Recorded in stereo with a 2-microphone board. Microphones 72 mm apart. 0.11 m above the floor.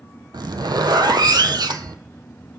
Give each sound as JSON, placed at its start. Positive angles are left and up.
{"t": 0.3, "sound": "a zipper", "side_deg": -70, "distance_m": 0.6}